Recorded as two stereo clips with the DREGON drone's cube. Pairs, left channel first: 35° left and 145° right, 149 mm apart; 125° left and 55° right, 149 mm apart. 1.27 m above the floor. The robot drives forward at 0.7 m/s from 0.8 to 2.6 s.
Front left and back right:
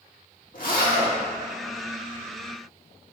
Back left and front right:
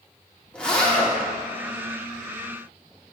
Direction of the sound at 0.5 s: 40° left.